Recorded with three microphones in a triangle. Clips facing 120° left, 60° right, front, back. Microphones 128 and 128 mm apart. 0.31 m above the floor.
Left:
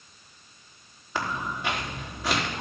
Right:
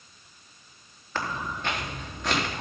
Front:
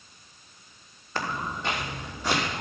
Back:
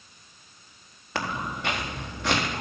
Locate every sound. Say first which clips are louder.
1.1 s footsteps: left 1 dB, back 1 dB; 160° right, 2.5 m